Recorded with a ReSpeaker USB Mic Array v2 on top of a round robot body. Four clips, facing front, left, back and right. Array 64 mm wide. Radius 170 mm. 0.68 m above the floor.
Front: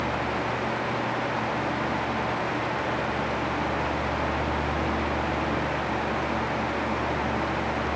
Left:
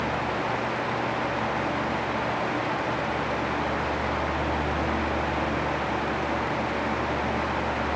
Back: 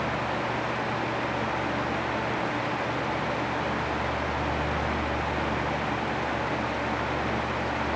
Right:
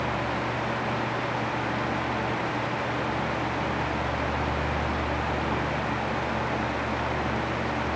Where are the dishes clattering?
No dishes clattering in this recording.